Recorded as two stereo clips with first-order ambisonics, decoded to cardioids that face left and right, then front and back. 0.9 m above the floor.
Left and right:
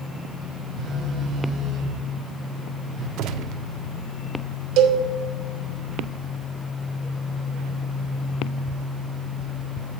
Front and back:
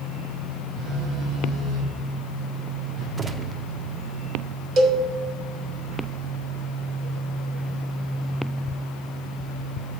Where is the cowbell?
125° right, 1.2 m.